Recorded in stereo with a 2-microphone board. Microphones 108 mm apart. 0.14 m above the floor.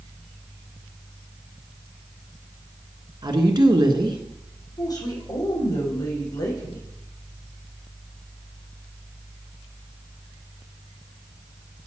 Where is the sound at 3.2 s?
40° right (ahead or behind), 1.5 m.